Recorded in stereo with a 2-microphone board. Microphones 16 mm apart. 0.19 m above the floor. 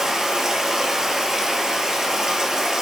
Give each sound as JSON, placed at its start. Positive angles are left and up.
{"t": 0.0, "sound": "running water", "side_deg": -45, "distance_m": 0.8}